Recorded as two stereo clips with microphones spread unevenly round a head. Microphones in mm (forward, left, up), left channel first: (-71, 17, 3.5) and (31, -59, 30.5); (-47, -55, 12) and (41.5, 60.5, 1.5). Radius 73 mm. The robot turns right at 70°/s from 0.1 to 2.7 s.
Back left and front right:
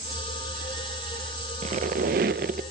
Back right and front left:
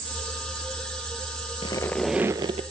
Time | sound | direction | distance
1.6 | a squeak | 70° right | 0.8 m